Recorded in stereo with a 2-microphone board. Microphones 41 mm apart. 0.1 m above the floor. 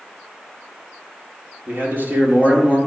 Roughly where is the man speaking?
Right.